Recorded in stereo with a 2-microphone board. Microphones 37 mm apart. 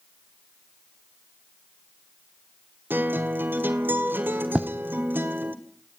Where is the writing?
30° right (ahead or behind), 0.9 m.